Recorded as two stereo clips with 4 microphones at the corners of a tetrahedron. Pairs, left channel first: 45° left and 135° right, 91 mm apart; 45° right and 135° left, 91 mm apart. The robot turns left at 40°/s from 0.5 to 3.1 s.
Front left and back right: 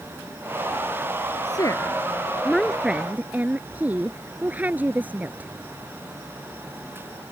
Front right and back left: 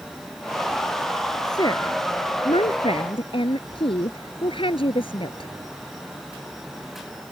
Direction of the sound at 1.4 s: Straight ahead.